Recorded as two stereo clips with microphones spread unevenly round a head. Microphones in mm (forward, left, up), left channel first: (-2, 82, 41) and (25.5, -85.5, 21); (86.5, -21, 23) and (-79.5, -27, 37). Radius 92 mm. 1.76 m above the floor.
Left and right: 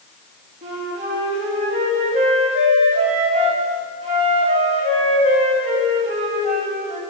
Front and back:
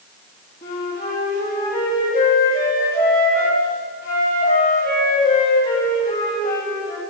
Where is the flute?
30° right, 3.5 m.